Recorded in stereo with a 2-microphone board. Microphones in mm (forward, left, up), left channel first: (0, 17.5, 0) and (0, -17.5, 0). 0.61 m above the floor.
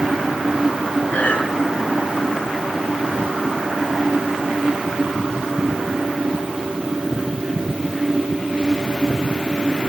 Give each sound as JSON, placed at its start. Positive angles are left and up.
{"t": 1.1, "sound": "breathing", "side_deg": 35, "distance_m": 6.0}